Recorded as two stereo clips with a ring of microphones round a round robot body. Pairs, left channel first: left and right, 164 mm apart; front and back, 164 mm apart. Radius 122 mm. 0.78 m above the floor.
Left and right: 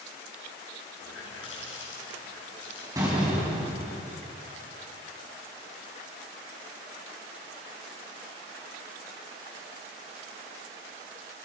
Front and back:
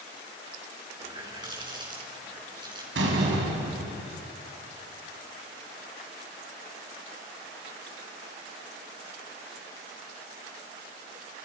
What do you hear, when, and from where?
1.0 s a running tap: 115° left, 6.5 m
3.0 s a door slam: 165° right, 4.5 m